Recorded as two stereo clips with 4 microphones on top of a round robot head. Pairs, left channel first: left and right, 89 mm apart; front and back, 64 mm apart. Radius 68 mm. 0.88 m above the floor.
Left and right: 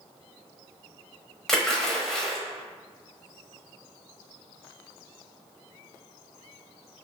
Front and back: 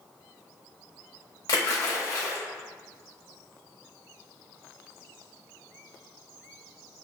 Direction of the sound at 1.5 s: 5° left.